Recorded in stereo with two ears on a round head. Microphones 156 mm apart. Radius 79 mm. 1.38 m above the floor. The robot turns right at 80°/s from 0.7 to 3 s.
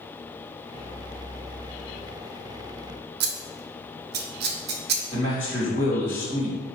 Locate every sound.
3.2 s scissors: 65° right (ahead or behind), 0.6 m
5.1 s a man speaking: 75° left (ahead or behind), 1.5 m